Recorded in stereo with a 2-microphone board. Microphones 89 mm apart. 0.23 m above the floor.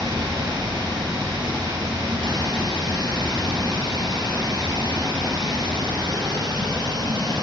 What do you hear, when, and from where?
0.0 s running water: 50° right (ahead or behind), 1.5 m